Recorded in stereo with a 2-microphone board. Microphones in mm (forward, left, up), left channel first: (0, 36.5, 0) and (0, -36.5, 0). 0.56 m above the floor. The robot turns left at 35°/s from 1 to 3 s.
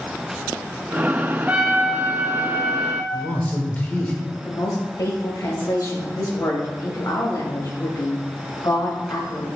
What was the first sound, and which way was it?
A trumpet, 35° right.